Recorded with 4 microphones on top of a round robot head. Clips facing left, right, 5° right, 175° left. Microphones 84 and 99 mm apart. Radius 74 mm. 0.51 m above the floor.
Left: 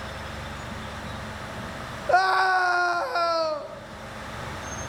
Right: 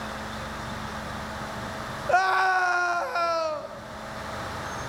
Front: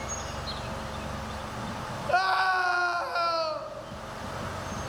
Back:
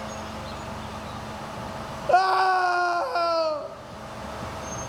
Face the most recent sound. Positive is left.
turn(degrees=165)